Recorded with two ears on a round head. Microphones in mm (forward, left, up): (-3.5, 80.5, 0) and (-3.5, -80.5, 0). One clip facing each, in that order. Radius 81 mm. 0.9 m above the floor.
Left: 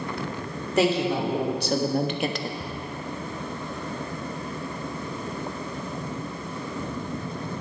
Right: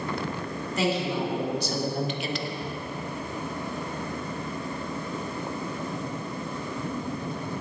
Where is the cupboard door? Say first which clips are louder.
Right 1 dB; 85° left, 3 m.